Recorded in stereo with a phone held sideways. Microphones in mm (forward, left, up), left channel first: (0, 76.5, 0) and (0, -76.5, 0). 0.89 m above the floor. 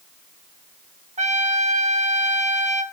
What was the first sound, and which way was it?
A trumpet, 50° right (ahead or behind).